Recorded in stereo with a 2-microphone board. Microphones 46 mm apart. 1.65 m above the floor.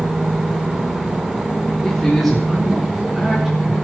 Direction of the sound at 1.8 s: 5° left (ahead or behind).